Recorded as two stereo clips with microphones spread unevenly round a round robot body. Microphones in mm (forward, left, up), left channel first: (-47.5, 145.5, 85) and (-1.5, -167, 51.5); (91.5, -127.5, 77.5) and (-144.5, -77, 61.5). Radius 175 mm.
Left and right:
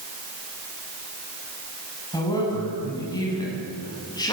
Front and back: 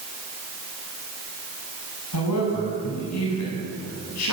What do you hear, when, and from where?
2.1 s a woman speaking: 20° left, 7.5 m